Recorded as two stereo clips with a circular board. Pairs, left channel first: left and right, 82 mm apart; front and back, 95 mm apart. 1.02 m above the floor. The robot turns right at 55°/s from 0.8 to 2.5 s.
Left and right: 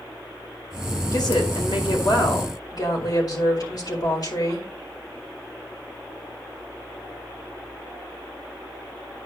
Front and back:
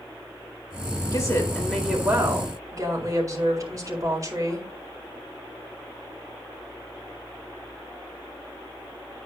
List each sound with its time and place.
1.1 s a woman speaking: 50° left, 4 m; by 4.7 s 125° left, 4 m